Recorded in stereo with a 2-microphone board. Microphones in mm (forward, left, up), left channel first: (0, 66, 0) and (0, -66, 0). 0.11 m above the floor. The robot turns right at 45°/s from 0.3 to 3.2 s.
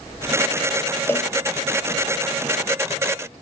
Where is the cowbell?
20° left (ahead or behind), 0.5 m; by 1.3 s 25° left (ahead or behind), 0.5 m.